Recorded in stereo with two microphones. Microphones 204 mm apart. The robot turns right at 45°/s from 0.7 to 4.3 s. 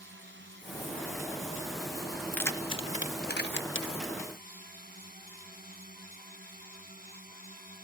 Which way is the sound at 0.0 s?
65° right (ahead or behind).